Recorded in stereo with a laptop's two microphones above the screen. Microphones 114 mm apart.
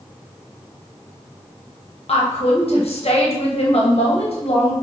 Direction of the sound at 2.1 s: 60° left (ahead or behind).